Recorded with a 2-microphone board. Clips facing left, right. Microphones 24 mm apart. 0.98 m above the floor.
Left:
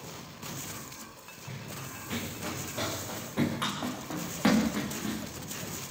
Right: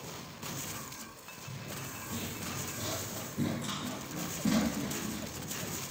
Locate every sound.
1.5 s running footsteps: 50° left (ahead or behind), 5 m; by 5.2 s 85° left, 7 m